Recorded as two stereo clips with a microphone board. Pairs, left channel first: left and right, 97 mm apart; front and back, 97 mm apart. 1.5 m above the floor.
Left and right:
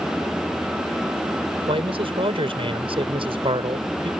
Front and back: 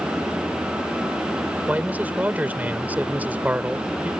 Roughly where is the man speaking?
Right.